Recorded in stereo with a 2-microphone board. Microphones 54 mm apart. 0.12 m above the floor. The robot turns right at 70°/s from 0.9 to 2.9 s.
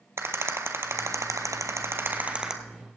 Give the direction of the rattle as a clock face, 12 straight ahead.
4 o'clock.